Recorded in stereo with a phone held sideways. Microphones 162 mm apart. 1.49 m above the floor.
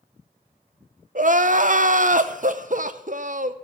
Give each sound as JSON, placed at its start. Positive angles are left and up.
{"t": 1.1, "sound": "crying", "side_deg": -50, "distance_m": 0.6}